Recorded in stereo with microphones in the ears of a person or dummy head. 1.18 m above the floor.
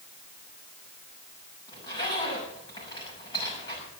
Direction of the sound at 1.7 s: 25° left (ahead or behind).